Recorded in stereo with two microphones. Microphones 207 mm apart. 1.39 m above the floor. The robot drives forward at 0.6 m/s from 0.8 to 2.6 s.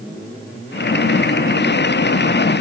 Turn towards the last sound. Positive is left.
No sound to turn to.